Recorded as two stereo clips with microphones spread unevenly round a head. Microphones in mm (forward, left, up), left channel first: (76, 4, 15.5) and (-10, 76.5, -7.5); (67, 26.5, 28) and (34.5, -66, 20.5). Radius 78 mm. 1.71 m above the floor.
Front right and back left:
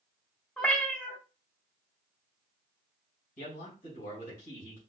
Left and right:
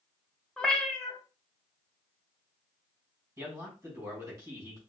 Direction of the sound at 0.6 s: Straight ahead.